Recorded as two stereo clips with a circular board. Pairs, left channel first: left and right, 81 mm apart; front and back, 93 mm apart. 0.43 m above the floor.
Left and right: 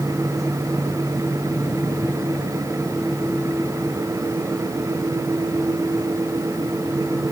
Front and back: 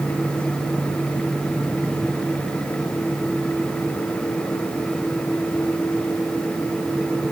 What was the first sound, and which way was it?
Only background noise.